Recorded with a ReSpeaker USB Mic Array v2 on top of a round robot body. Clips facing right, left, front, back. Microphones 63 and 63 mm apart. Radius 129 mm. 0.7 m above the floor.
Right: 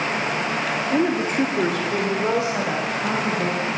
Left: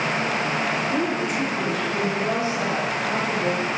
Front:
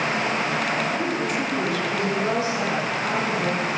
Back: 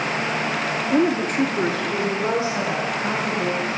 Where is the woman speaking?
160° right, 1.1 m; by 3.7 s 105° right, 4 m.